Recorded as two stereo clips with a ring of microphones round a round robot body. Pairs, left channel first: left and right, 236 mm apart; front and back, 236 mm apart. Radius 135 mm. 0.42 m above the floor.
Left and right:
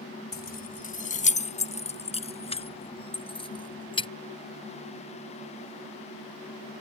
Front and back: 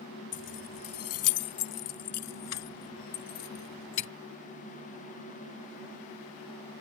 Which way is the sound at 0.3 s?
45° left.